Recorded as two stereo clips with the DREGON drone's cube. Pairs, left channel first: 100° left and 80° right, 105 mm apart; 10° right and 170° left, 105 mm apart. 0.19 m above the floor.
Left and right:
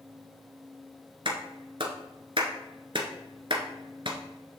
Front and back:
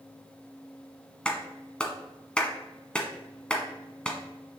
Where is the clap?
90° right, 1.5 m.